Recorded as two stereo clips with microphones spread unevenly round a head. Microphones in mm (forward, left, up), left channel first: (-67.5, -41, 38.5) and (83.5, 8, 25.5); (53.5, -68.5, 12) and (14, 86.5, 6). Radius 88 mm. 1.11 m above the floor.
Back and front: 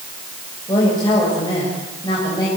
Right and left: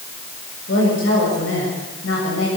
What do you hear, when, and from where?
0.7 s a woman speaking: 100° right, 7 m